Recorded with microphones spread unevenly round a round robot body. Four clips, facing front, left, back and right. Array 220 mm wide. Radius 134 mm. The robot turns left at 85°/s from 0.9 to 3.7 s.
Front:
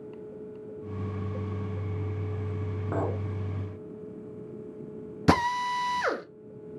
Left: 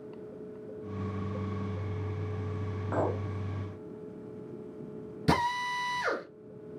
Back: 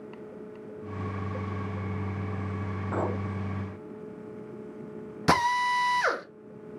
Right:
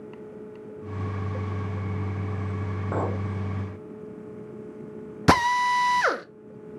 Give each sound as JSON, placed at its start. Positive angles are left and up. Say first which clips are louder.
{"t": 2.9, "sound": "a clink", "louder": "right 1 dB, even", "azimuth_deg": -35, "distance_m": 2.5}
{"t": 5.3, "sound": "a drill", "louder": "right 9 dB, back 1 dB", "azimuth_deg": -100, "distance_m": 0.7}